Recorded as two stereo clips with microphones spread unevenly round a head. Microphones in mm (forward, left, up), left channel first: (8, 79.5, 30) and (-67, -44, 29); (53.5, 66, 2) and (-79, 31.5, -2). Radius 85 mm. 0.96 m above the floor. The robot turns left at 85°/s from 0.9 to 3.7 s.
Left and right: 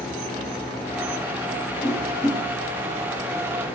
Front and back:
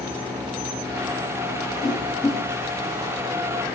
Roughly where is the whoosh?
Ahead right.